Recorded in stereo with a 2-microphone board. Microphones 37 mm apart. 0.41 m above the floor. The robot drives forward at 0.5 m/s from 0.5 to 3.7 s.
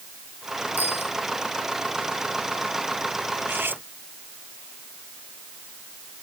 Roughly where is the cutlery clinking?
Right.